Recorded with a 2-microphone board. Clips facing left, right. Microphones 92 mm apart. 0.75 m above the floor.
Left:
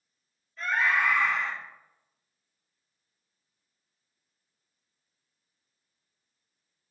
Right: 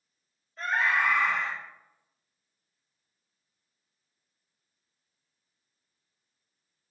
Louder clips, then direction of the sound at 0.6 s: Even; 40° right (ahead or behind).